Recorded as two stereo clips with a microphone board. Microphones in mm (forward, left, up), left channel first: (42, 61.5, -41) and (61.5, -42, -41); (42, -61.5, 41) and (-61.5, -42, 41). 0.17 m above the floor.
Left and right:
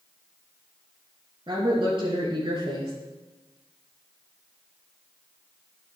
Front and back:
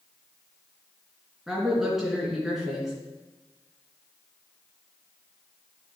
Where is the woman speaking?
105° right, 2.5 m.